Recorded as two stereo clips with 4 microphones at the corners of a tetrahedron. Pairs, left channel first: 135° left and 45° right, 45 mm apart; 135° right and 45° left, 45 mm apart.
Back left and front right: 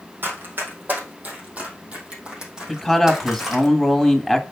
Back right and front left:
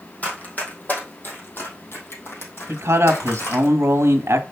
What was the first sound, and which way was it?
Running footsteps, 80° right.